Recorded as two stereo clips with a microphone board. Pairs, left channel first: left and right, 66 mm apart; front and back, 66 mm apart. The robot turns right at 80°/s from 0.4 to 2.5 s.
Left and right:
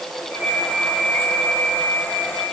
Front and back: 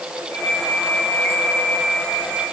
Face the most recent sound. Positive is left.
No sound to turn to.